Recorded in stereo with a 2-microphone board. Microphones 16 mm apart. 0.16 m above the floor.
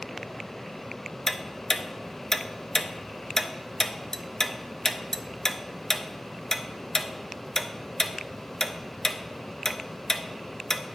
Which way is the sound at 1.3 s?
20° left (ahead or behind).